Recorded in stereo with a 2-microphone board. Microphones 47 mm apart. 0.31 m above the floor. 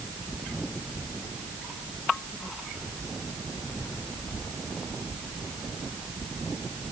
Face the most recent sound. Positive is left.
No sound to turn to.